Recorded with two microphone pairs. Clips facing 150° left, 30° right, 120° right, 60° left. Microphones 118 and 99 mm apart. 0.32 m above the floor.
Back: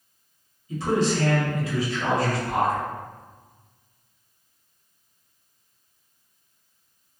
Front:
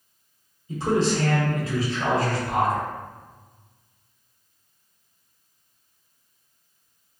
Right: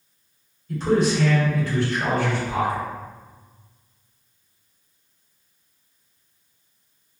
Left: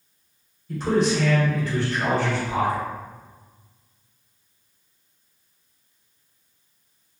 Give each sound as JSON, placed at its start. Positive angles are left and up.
{"t": 0.7, "sound": "a man speaking", "azimuth_deg": -20, "distance_m": 1.1}